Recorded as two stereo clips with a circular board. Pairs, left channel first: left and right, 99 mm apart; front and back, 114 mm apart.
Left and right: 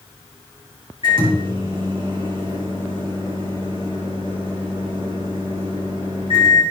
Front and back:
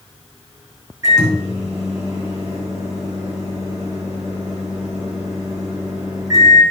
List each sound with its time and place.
1.0 s a microwave: 120° right, 5.5 m